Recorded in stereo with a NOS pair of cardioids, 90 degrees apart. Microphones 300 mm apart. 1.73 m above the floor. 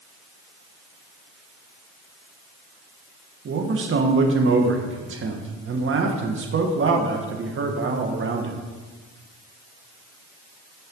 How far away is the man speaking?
About 1.6 m.